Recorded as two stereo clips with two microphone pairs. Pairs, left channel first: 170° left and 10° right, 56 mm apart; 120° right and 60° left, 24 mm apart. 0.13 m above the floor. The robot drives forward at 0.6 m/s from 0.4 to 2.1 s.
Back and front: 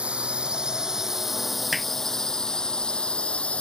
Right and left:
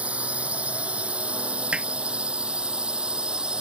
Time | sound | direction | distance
0.0 | a drone | 60° left | ?
1.7 | hammering | 80° left | ?